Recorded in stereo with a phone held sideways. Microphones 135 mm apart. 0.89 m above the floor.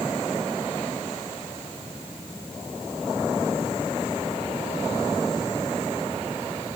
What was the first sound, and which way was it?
Only background noise.